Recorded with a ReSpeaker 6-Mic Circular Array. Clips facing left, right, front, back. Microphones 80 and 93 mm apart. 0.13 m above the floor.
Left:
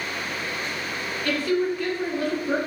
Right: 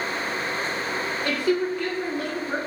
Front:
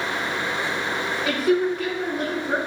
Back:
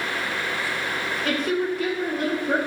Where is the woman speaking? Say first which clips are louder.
Left 1 dB, front 4 dB; 70° right, 1.2 m; by 2.6 s 115° left, 1.4 m.